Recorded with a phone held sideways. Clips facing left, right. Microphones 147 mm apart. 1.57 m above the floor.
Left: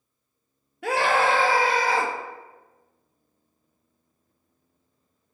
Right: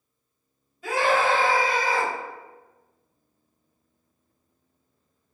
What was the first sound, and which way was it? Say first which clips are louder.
A scream: even; 75° left (ahead or behind).